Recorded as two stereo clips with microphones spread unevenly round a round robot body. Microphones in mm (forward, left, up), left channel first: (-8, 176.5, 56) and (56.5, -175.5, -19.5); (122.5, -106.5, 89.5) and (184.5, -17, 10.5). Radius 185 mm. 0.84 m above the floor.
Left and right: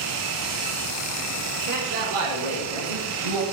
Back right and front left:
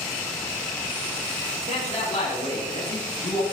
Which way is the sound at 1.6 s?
90° right.